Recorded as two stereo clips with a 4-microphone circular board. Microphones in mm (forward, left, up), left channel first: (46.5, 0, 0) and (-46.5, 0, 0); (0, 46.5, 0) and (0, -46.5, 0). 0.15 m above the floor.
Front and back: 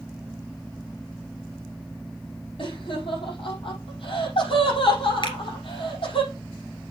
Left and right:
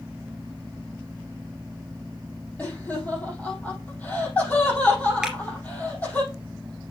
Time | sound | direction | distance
2.6 | laughter | 15° left | 5 m
5.2 | a finger snap | 10° right | 2 m